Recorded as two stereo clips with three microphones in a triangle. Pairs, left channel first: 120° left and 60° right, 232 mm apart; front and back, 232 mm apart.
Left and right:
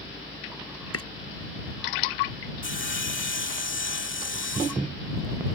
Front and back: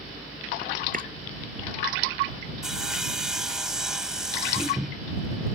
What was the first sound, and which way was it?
Chopping, 125° left.